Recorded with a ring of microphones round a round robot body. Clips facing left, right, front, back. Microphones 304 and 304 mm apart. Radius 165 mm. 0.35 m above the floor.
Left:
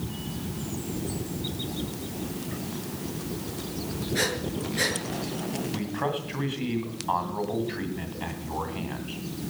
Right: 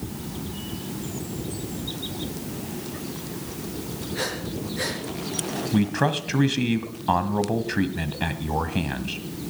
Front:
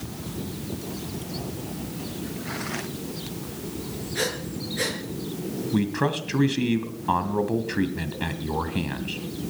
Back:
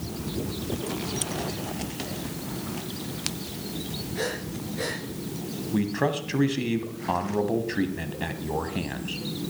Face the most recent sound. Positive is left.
turn(degrees=-75)